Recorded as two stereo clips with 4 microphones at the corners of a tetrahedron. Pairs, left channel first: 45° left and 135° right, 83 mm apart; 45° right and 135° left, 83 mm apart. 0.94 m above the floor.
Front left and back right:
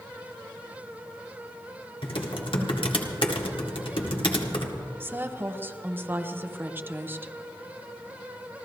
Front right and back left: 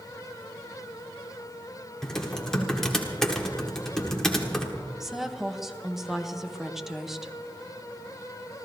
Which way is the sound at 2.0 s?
40° left.